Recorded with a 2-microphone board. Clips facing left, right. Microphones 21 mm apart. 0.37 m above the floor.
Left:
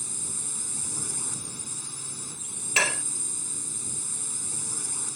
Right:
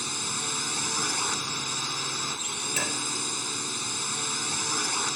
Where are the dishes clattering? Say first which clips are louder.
Left 8 dB; 45° left (ahead or behind).